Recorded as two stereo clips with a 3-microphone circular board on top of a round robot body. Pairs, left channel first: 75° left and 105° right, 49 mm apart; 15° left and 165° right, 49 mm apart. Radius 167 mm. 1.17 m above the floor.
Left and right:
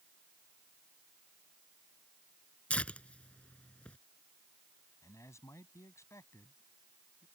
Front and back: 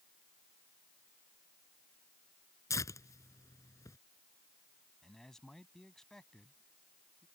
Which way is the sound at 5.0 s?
95° left.